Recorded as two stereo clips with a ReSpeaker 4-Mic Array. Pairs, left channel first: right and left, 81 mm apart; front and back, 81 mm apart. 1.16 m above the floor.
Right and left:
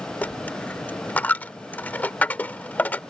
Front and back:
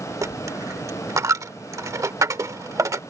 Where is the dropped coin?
155° right.